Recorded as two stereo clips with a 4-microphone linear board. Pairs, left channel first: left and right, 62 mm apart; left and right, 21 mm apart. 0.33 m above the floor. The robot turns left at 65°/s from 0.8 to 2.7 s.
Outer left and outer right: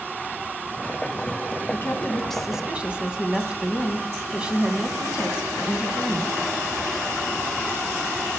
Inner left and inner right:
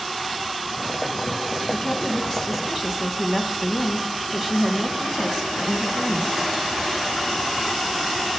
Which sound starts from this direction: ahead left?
A woman speaking, at 1.7 s.